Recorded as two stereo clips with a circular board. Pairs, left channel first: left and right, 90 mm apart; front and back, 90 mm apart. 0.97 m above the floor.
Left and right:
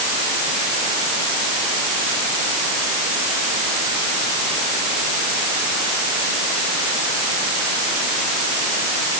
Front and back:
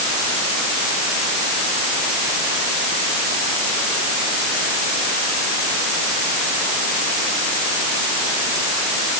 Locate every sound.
Only background noise.